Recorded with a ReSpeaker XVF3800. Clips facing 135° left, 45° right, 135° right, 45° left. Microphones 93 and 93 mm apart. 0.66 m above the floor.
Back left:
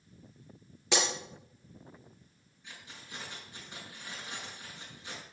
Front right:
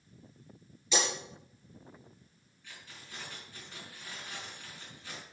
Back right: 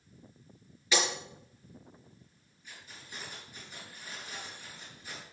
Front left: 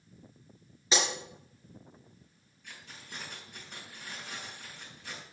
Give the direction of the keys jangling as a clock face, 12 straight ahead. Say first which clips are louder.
Back left 2 dB, front left 1 dB; 10 o'clock.